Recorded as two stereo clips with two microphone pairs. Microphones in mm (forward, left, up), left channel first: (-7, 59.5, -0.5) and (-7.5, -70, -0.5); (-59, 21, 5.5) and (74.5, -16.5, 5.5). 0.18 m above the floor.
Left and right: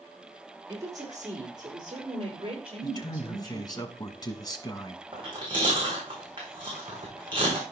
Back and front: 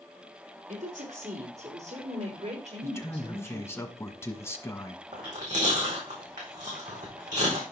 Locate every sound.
0.7 s a woman speaking: 30° right, 5 m; by 3.8 s 55° right, 5 m
2.8 s a man speaking: 110° left, 1.2 m
5.1 s chewing: 40° right, 5 m